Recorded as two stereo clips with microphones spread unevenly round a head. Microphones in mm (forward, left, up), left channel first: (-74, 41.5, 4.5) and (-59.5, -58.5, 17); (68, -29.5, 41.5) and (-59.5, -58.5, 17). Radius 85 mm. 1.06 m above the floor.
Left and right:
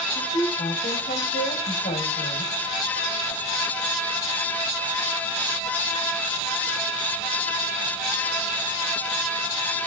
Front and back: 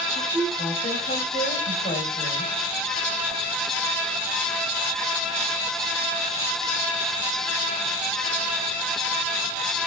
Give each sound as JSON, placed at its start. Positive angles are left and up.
{"t": 0.1, "sound": "a woman speaking", "azimuth_deg": 70, "distance_m": 5.0}